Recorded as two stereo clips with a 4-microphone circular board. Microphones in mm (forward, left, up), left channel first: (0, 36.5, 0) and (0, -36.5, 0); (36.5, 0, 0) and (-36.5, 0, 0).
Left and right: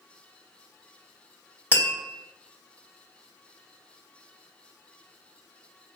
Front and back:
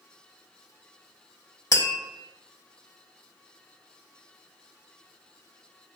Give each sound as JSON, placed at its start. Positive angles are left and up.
{"t": 1.7, "sound": "tapping", "azimuth_deg": -25, "distance_m": 1.8}